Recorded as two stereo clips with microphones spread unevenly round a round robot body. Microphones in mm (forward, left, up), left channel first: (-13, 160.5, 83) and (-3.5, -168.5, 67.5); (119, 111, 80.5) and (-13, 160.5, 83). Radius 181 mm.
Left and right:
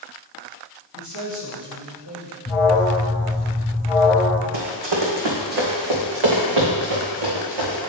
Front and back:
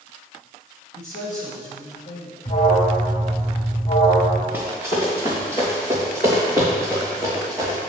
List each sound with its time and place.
0.9 s a man speaking: 55° right, 2.5 m
2.5 s an alarm: straight ahead, 2.5 m
4.5 s running footsteps: 90° right, 1.7 m; by 7.8 s 105° right, 3 m